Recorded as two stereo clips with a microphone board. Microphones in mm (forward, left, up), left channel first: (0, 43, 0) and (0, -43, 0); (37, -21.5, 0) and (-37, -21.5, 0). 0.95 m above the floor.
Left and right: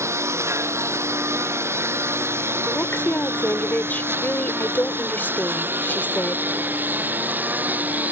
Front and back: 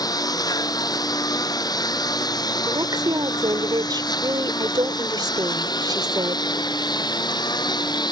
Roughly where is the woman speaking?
Behind.